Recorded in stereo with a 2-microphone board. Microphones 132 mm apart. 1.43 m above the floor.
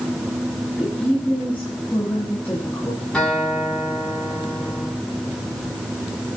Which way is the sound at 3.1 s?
5° left (ahead or behind).